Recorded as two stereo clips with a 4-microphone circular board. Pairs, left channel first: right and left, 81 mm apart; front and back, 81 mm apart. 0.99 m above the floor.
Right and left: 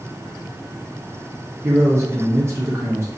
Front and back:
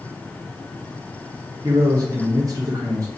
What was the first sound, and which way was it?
A man speaking, 140° left.